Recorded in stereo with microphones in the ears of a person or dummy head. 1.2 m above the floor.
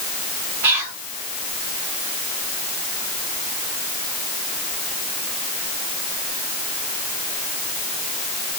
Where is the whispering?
65° right (ahead or behind), 2.5 m.